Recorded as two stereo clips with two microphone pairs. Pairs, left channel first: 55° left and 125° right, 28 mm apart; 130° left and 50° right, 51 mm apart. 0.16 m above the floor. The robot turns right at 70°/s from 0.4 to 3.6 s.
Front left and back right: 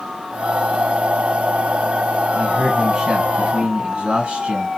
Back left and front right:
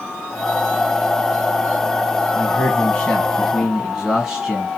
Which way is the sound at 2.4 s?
140° left.